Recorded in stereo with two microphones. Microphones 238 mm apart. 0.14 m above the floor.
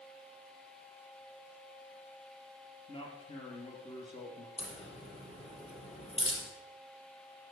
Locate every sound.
2.9 s a man speaking: 20° left (ahead or behind), 3 m
4.6 s a crack: 25° left (ahead or behind), 4 m